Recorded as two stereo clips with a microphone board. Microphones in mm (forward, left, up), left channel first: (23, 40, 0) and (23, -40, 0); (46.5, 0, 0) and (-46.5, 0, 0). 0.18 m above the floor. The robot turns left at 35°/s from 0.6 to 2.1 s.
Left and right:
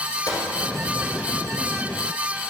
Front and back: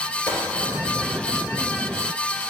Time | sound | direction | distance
0.3 | a gunshot | 65° left | 2.0 m